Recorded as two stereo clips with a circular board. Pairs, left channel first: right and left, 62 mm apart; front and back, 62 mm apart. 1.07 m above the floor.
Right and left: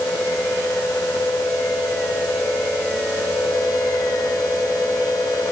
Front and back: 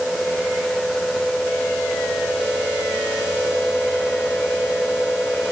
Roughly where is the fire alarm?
No fire alarm in this recording.